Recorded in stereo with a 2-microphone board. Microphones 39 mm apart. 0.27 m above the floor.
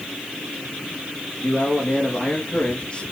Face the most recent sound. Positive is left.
turn(degrees=30)  # may be behind; listen again after turning